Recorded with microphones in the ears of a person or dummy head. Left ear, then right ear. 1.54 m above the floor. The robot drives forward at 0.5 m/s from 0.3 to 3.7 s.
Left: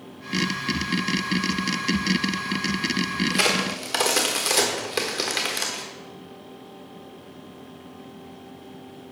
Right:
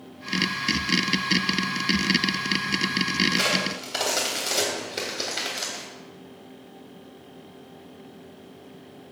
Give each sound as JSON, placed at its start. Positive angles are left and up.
{"t": 3.3, "sound": "a crack", "side_deg": 30, "distance_m": 1.3}